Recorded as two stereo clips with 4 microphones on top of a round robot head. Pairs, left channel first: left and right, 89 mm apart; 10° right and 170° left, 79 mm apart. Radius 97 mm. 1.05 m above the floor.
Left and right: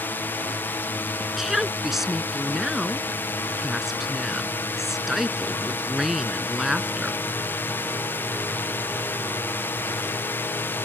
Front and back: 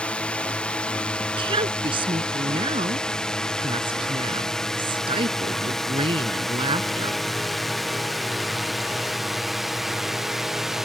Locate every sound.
0.0 s a drone: 50° left; by 10.8 s 90° left
1.2 s a woman speaking: 175° right